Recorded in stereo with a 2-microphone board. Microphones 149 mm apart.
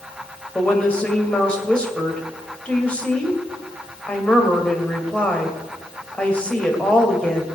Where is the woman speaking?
10° left (ahead or behind), 2.5 m.